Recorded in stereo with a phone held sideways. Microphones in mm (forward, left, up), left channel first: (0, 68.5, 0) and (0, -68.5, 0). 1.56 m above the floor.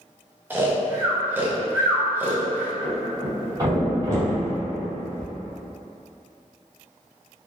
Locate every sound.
0.5 s snoring: 15° right (ahead or behind), 0.5 m
2.8 s a thud: 25° right (ahead or behind), 1.9 m